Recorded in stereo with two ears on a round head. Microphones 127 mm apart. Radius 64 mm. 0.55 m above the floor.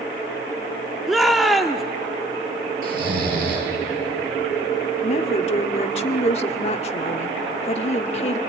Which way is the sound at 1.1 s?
Centre (ahead or behind).